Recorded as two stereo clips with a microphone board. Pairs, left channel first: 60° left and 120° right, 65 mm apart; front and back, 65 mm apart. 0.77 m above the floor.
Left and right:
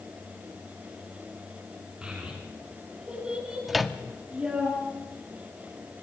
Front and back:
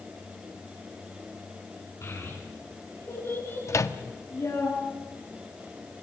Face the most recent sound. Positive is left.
turn(degrees=-30)